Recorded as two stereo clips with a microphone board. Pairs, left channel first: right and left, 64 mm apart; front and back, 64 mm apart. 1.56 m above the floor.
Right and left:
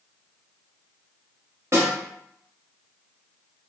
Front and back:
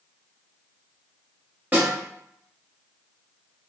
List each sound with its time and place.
1.7 s a snare drum: 125° left, 1.2 m